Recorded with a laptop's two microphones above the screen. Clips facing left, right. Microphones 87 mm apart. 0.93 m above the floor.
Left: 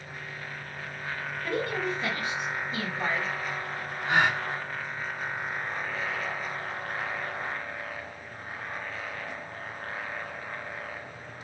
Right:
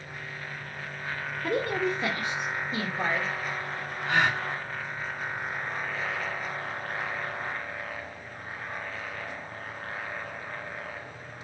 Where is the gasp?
30° left (ahead or behind), 1.3 m.